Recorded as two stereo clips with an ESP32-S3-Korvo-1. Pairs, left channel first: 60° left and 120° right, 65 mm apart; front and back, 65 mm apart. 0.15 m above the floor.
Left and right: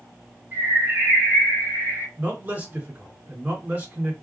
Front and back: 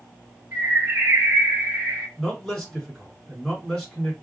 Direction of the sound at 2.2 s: 80° right.